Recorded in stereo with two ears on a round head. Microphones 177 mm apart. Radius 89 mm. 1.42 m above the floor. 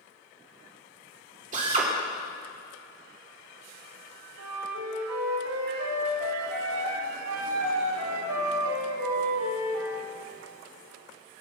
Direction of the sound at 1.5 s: 40° right (ahead or behind).